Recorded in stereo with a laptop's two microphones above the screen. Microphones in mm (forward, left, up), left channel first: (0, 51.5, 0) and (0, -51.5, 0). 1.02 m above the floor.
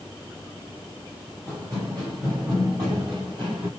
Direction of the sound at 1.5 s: 25° right (ahead or behind).